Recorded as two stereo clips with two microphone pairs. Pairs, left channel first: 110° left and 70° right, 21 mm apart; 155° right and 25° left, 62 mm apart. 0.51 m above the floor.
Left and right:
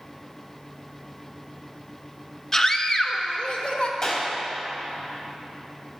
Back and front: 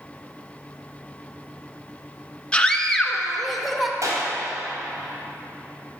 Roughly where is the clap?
Ahead left.